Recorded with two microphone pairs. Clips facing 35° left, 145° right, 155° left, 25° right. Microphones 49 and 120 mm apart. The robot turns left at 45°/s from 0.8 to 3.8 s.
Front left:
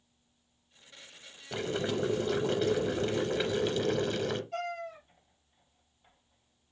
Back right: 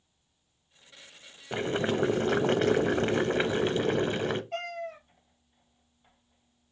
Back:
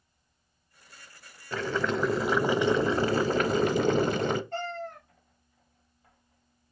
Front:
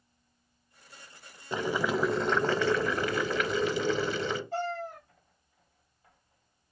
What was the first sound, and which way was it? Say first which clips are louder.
Boiling: back right 4 dB, even; 90° right.